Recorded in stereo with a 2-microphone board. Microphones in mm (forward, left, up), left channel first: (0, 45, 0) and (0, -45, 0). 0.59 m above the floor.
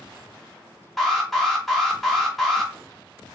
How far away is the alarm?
About 1.1 m.